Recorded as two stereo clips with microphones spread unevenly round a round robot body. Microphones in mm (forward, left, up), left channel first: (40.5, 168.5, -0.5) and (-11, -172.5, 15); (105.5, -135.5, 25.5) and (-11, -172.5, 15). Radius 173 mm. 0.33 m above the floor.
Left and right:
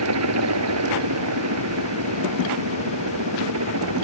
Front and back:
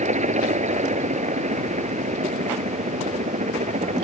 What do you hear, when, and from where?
0.0 s a helicopter: 145° right